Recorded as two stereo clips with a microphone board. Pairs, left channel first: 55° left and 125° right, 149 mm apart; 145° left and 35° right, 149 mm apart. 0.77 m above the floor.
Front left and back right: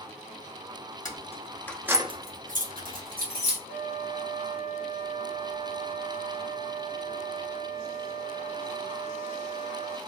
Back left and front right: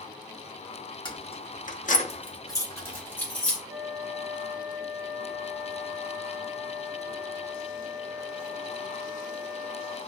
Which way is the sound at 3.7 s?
40° left.